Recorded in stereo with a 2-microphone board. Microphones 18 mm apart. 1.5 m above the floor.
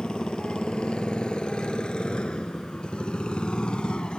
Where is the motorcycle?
70° left (ahead or behind); by 4.2 s 75° left (ahead or behind).